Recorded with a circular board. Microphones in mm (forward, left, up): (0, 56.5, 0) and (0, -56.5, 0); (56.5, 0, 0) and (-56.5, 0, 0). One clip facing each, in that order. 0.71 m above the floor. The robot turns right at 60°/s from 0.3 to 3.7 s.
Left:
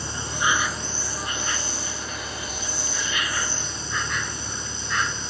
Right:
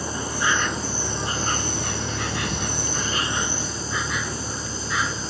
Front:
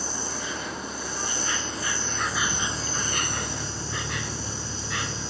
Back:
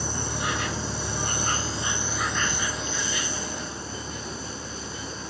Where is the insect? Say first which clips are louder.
Right 1 dB, back 3 dB; 150° left; by 5.3 s 5° right.